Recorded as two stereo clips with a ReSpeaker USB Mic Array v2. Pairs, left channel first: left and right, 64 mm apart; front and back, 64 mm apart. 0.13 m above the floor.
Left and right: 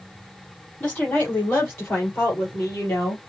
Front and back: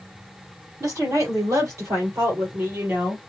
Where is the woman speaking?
150° left, 4 m; by 3.2 s 130° left, 3 m.